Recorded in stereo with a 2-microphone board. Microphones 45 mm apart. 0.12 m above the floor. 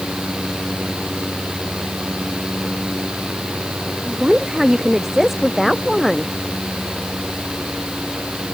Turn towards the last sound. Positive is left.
turn(degrees=5)  # may be behind; listen again after turning